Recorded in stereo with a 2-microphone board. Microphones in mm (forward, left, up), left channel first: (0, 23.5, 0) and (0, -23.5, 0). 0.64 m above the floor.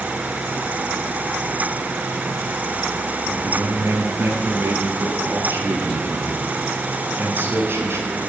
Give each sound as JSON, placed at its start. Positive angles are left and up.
{"t": 3.3, "sound": "a man speaking", "side_deg": -55, "distance_m": 7.0}